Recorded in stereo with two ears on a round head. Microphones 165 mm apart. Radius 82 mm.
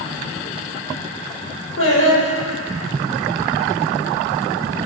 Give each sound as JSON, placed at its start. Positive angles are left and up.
{"t": 1.8, "sound": "singing", "side_deg": 80, "distance_m": 8.5}